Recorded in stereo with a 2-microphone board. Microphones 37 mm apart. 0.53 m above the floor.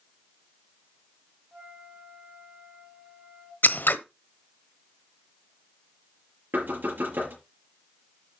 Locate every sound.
1.5 s a flute: 30° right (ahead or behind), 2.5 m
3.6 s scissors: 75° left (ahead or behind), 0.8 m
6.5 s knocking: 80° right, 6 m